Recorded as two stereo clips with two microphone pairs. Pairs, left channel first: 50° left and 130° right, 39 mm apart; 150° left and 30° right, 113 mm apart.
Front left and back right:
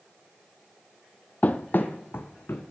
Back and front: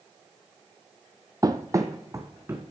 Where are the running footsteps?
20° left, 0.7 m; by 2.6 s 35° left, 1.5 m.